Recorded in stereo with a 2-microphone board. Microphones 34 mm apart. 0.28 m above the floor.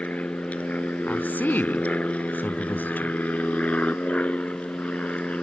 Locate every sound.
0.0 s an aircraft: 45° left (ahead or behind)
1.1 s a woman speaking: 60° left (ahead or behind)